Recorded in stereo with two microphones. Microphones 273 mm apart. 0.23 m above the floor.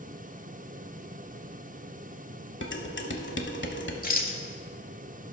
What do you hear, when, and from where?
2.6 s dishes clattering: 45° left (ahead or behind), 0.9 m
4.0 s a rattle: 35° left (ahead or behind), 0.8 m